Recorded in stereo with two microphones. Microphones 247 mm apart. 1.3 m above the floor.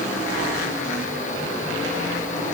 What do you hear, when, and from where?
Only background noise.